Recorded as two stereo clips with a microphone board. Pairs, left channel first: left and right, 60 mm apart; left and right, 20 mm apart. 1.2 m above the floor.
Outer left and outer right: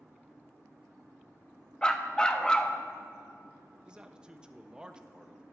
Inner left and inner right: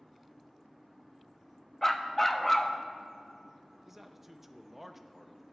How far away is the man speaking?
About 0.5 m.